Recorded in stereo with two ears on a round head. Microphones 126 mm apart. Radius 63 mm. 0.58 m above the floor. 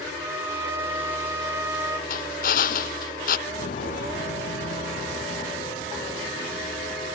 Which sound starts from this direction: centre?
A violin, at 0.1 s.